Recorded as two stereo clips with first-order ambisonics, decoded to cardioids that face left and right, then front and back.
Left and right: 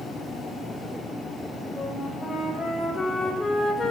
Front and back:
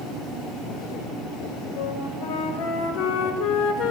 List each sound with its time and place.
1.8 s a flute: 10° left, 4 m